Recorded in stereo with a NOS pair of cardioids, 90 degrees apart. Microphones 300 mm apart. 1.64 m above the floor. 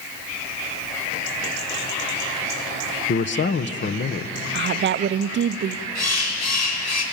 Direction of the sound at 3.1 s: 40° left.